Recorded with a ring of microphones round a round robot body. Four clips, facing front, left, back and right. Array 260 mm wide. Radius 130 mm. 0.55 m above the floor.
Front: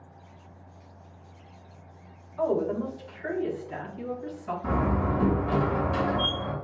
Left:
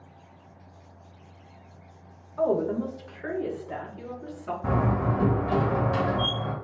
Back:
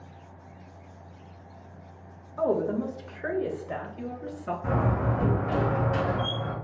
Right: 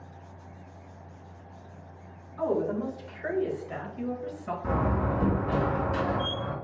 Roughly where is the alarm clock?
I don't hear an alarm clock.